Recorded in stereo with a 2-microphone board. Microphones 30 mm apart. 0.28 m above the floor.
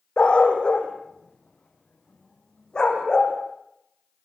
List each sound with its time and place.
0.2 s a dog barking: 40° left (ahead or behind), 4.5 m; by 3.3 s 30° left (ahead or behind), 6 m